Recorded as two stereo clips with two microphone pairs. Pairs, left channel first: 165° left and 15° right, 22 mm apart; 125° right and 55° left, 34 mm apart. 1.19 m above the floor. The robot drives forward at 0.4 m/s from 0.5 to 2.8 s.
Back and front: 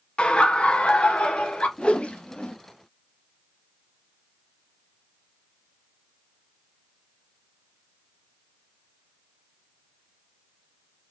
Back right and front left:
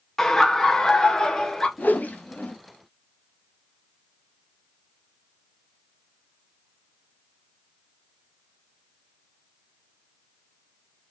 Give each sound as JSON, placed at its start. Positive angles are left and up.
{"t": 0.2, "sound": "laughter", "azimuth_deg": 160, "distance_m": 0.8}
{"t": 1.8, "sound": "a whoosh", "azimuth_deg": -150, "distance_m": 0.6}